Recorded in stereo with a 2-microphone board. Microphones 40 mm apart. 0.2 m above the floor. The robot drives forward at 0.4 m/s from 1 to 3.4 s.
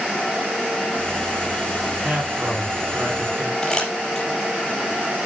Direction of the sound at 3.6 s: 15° left (ahead or behind).